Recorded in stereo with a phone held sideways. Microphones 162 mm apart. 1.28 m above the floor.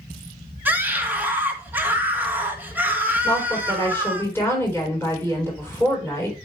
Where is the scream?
10° right (ahead or behind), 1.6 m.